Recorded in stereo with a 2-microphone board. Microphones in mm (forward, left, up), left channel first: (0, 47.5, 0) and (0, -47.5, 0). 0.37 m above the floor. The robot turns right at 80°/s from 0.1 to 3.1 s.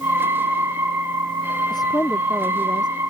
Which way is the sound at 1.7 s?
130° left.